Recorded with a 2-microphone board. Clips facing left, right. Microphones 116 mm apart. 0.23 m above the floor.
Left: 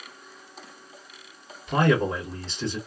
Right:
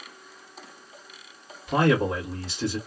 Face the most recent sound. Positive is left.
turn(degrees=-5)  # may be behind; listen again after turning